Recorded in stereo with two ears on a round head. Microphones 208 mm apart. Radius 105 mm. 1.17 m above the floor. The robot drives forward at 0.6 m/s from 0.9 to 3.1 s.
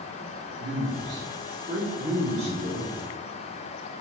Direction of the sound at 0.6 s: 55° right (ahead or behind).